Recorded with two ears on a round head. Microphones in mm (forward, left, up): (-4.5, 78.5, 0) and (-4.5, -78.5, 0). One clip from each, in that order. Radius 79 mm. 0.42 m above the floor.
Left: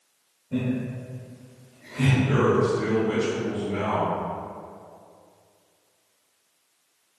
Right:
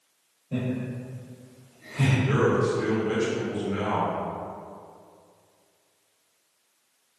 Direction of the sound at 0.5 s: 35° right (ahead or behind).